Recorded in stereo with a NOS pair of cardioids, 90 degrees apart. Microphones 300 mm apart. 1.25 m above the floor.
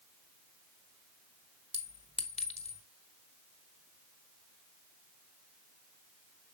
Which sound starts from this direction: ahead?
A clink, at 1.7 s.